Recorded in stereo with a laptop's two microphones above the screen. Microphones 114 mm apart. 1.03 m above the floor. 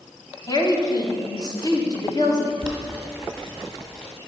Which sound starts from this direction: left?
A woman speaking, at 0.5 s.